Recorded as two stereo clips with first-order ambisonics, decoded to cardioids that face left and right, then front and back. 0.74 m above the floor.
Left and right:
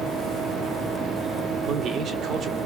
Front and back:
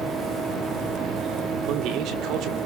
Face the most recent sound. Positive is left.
turn(degrees=-145)